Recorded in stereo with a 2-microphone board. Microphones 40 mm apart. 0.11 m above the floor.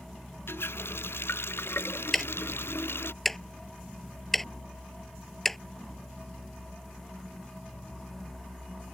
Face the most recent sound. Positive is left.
turn(degrees=5)  # may be behind; listen again after turning